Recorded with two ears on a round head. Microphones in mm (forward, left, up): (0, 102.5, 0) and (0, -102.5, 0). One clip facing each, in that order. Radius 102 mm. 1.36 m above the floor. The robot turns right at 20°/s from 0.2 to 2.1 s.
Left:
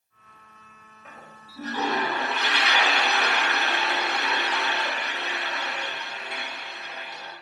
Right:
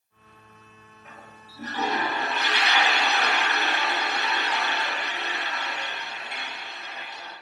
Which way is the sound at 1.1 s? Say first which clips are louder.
Left 1 dB; 55° left (ahead or behind).